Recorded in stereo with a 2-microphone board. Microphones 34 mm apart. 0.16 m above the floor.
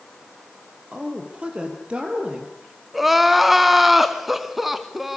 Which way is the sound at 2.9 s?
5° right (ahead or behind).